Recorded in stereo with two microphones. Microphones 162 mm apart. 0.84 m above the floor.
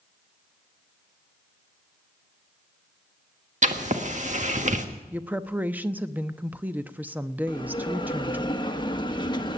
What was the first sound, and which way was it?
Writing, 50° right (ahead or behind).